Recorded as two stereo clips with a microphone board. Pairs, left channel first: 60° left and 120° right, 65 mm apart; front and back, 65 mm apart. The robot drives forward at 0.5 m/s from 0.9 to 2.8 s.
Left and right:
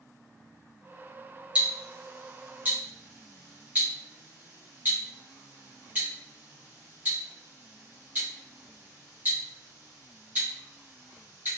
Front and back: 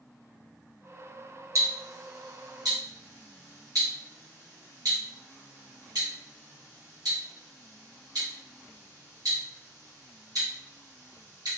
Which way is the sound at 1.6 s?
170° left.